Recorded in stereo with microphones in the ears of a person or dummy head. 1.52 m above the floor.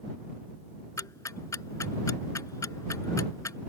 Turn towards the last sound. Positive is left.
turn(degrees=20)  # may be behind; listen again after turning